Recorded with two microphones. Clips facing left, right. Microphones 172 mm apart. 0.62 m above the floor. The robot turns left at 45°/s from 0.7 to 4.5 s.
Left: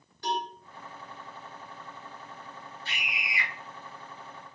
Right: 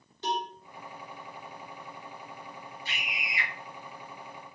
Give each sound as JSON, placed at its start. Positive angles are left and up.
{"t": 0.2, "sound": "a cowbell", "side_deg": -20, "distance_m": 1.4}
{"t": 2.9, "sound": "a scream", "side_deg": -15, "distance_m": 1.9}